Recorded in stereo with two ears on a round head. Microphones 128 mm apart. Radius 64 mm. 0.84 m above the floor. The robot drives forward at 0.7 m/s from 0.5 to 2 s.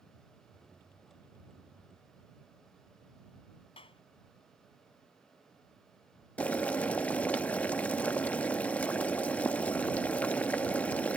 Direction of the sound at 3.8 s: 40° left (ahead or behind).